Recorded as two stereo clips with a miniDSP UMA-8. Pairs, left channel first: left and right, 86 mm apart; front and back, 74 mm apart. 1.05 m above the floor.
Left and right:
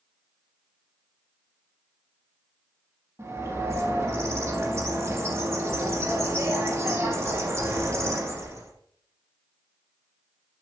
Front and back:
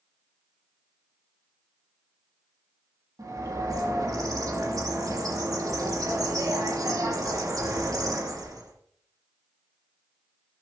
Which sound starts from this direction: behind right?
A bird, at 3.2 s.